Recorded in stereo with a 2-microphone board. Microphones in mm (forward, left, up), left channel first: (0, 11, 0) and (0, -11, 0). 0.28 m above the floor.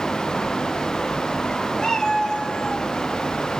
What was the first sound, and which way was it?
A cat meowing, 40° left (ahead or behind).